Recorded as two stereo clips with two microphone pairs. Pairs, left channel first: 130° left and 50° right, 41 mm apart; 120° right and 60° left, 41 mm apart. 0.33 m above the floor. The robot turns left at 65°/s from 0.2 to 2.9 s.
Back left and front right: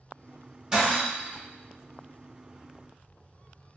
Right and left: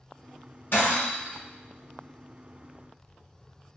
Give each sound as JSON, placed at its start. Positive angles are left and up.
{"t": 0.7, "sound": "breaking glass", "azimuth_deg": -125, "distance_m": 1.7}